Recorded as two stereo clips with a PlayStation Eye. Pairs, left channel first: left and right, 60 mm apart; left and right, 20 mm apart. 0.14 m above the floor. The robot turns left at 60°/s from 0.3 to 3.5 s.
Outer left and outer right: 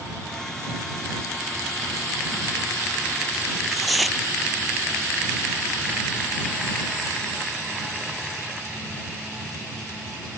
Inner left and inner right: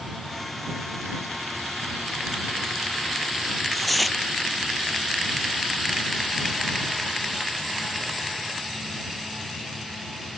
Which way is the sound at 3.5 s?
Centre (ahead or behind).